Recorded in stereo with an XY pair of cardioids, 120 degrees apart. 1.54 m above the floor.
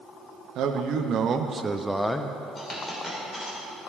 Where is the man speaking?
70° right, 1.0 m; by 2.4 s 30° left, 0.6 m.